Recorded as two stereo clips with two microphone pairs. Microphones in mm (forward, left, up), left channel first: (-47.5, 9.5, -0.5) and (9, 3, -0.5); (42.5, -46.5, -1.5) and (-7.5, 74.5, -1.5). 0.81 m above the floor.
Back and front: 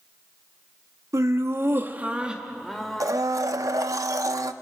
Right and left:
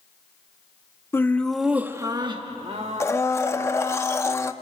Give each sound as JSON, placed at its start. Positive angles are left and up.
{"t": 1.1, "sound": "laughter", "azimuth_deg": 0, "distance_m": 1.4}
{"t": 3.0, "sound": "a blender", "azimuth_deg": 0, "distance_m": 0.8}